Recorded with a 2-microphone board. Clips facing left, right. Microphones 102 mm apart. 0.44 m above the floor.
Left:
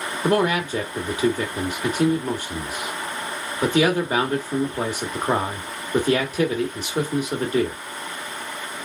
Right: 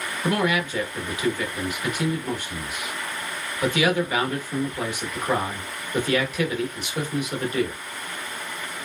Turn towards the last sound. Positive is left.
turn(degrees=35)  # may be behind; listen again after turning